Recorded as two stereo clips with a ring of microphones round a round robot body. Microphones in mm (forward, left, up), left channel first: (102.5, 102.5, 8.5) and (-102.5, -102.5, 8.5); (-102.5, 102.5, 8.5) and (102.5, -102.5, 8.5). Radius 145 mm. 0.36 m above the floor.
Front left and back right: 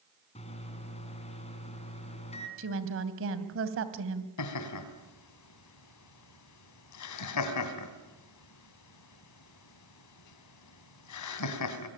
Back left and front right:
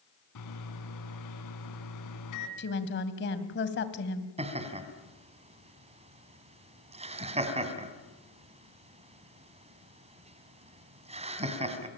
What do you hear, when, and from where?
0.3 s a microwave: 115° left, 3.5 m
2.6 s a woman speaking: 175° right, 2.5 m
4.4 s laughter: 25° left, 3.5 m